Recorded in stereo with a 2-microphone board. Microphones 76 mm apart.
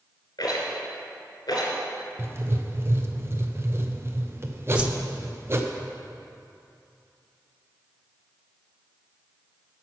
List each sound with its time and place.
0.4 s a rattle: 75° left (ahead or behind), 2.5 m
2.2 s writing: 35° right (ahead or behind), 0.7 m
4.8 s a whoosh: 15° right (ahead or behind), 0.6 m